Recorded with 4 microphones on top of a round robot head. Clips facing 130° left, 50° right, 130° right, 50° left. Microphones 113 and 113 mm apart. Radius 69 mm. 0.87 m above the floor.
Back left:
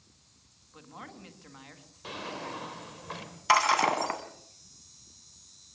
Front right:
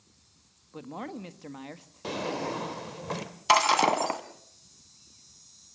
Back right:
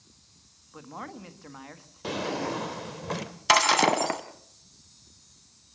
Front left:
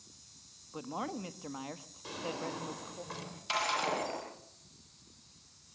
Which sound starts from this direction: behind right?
Breaking glass, at 3.5 s.